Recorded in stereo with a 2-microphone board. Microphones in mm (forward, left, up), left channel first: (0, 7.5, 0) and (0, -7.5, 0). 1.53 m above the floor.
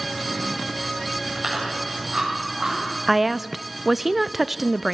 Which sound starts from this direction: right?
Chewing, at 1.4 s.